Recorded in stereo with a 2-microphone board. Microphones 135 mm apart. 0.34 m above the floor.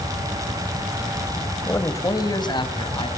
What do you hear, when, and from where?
1.7 s a man speaking: 20° left (ahead or behind), 1.8 m; by 3.1 s 40° left (ahead or behind), 3.5 m